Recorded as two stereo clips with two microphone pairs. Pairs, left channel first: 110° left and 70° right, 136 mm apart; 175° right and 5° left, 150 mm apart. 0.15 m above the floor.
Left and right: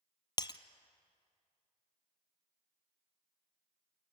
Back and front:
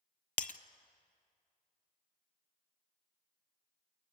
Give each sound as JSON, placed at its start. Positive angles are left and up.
{"t": 0.4, "sound": "breaking glass", "azimuth_deg": 165, "distance_m": 0.5}